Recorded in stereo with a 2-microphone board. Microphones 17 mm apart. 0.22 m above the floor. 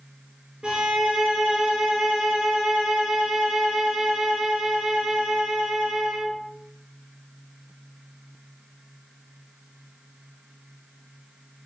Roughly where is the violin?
Right.